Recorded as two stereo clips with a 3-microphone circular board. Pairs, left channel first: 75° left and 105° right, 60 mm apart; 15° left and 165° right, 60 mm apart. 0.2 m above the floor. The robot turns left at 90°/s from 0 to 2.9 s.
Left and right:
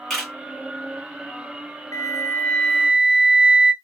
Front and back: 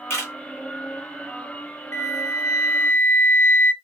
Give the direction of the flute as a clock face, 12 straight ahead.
10 o'clock.